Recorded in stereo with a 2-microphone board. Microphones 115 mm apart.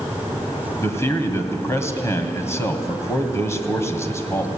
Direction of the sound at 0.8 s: 25° left (ahead or behind).